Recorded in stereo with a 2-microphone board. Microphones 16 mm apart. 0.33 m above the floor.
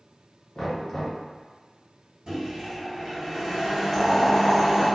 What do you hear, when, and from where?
0.6 s knocking: 25° left (ahead or behind), 1.3 m
2.3 s a microwave: 60° right (ahead or behind), 1.8 m
3.9 s boiling: 5° left (ahead or behind), 1.6 m